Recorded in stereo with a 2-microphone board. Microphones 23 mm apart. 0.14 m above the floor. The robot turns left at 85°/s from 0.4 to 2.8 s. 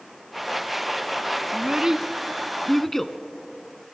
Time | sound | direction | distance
1.5 | a child speaking | 30° right (ahead or behind) | 0.7 m